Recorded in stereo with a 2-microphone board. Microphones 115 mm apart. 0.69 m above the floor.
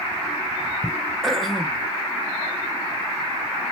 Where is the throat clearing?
Centre (ahead or behind), 0.6 m.